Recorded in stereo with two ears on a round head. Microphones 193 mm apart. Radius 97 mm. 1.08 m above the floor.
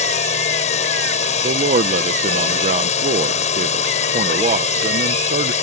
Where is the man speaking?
35° right (ahead or behind).